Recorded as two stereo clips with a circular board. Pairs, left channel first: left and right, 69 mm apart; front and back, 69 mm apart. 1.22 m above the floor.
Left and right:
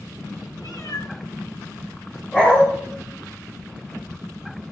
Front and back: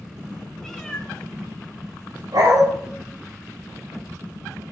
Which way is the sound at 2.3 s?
165° left.